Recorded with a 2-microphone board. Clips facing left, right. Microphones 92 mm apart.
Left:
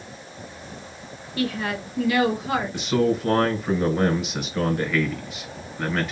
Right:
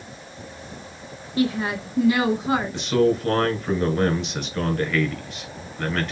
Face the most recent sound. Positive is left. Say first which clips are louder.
# right 2 dB
turn(degrees=5)  # may be behind; listen again after turning